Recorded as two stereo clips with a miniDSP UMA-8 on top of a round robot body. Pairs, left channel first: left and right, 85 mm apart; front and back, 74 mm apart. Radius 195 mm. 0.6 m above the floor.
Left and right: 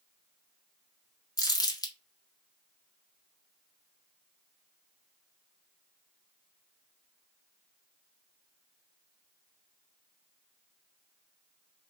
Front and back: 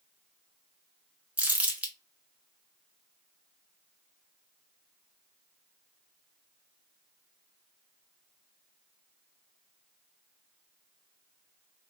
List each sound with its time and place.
1.4 s crumpling: 115° left, 1.3 m